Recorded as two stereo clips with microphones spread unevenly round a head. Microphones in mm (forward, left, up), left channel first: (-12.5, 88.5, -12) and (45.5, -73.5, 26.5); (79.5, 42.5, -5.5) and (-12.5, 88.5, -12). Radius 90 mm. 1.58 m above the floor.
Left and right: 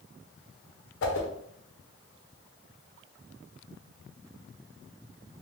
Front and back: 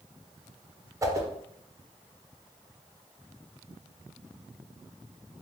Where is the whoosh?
95° left, 0.6 m.